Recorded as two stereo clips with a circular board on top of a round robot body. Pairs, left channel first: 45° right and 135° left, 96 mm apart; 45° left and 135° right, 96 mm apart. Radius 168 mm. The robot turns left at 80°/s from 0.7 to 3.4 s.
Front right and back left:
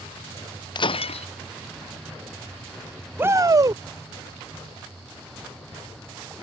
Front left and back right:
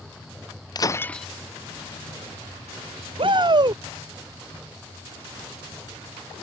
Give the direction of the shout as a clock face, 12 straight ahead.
5 o'clock.